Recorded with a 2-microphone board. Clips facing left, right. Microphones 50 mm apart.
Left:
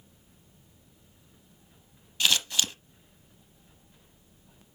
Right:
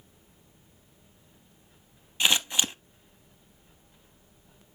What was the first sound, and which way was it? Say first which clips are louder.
Scissors: right 1 dB; 20° right (ahead or behind).